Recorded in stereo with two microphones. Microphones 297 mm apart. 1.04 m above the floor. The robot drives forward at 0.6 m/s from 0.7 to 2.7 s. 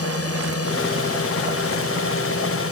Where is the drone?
50° left (ahead or behind).